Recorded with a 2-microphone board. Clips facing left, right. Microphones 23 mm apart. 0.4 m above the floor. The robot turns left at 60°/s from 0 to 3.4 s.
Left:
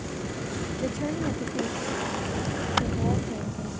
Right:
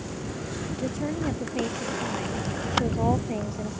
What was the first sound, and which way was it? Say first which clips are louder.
A woman speaking: even; 15° left.